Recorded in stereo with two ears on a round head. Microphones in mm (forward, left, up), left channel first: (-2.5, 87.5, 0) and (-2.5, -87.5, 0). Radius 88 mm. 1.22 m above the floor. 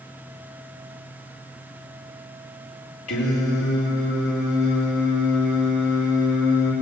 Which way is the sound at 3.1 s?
85° left.